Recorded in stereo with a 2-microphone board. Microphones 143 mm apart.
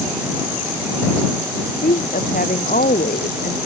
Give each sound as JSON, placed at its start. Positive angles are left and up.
{"t": 1.8, "sound": "a woman speaking", "side_deg": 80}